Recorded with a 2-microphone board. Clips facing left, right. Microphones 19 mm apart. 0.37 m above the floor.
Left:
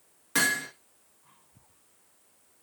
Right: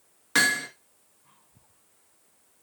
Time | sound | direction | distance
0.3 | hammering | 25° right (ahead or behind) | 2 m